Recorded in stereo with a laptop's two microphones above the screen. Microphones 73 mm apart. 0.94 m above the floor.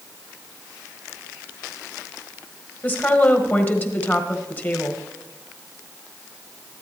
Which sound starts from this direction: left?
A woman speaking, at 2.8 s.